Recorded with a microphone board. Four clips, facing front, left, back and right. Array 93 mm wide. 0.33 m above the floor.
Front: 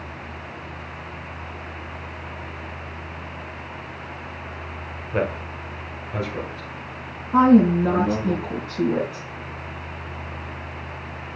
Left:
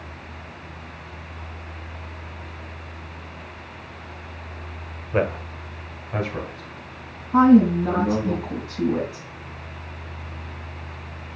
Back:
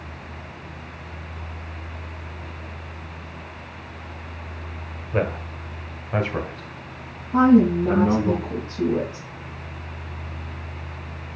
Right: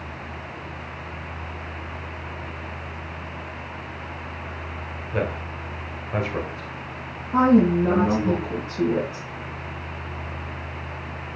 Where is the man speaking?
80° left, 1.4 m; by 8.3 s 150° right, 3.5 m.